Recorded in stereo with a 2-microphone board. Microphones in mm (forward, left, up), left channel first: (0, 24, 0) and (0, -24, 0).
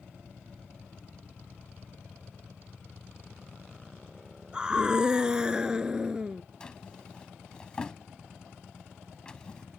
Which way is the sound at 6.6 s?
20° left (ahead or behind).